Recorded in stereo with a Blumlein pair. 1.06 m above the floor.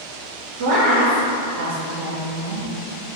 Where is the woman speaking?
55° right, 0.5 m.